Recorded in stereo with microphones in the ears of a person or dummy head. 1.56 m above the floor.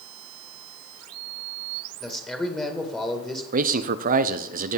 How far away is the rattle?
No rattle in this recording.